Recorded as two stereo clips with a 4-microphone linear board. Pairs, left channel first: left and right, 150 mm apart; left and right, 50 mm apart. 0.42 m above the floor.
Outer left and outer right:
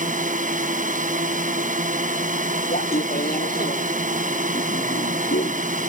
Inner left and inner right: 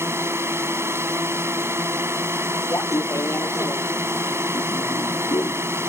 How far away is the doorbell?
I don't hear a doorbell.